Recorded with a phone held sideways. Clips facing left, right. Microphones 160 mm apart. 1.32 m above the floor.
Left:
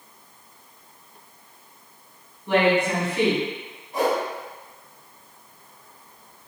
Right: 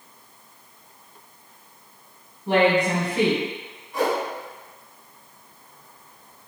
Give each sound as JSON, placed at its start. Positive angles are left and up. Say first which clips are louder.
{"t": 2.5, "sound": "a woman speaking", "louder": "right 1 dB", "side_deg": -35, "distance_m": 1.6}
{"t": 3.9, "sound": "a whoosh", "louder": "left 1 dB", "side_deg": 40, "distance_m": 1.6}